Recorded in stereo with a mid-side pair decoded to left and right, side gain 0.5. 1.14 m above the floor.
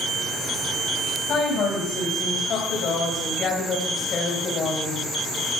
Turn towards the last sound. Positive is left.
turn(degrees=50)